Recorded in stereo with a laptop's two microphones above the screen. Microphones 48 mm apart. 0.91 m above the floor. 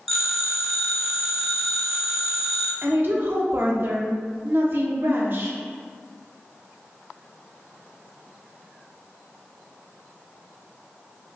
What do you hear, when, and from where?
0.1 s a phone ringing: centre (ahead or behind), 0.5 m
2.8 s a woman speaking: 50° right (ahead or behind), 0.5 m